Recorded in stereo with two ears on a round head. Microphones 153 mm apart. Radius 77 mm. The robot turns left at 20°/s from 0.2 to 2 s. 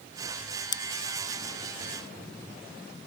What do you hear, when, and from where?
0.7 s scissors: 25° left (ahead or behind); by 0.8 s 30° left (ahead or behind)